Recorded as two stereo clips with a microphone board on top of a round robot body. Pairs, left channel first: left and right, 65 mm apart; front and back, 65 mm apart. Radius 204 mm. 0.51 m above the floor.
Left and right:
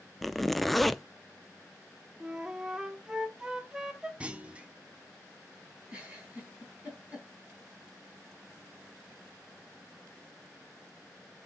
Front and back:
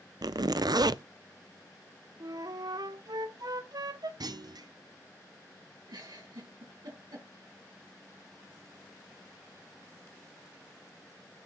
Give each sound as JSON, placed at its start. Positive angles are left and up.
{"t": 0.2, "sound": "a zipper", "azimuth_deg": 180, "distance_m": 0.6}
{"t": 2.2, "sound": "a flute", "azimuth_deg": -170, "distance_m": 1.1}
{"t": 4.2, "sound": "a clunk", "azimuth_deg": -160, "distance_m": 0.7}
{"t": 5.9, "sound": "a giggle", "azimuth_deg": -160, "distance_m": 4.0}